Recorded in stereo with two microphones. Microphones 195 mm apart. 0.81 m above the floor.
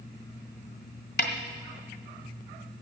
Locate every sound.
1.2 s a snare drum: 65° left (ahead or behind), 1.6 m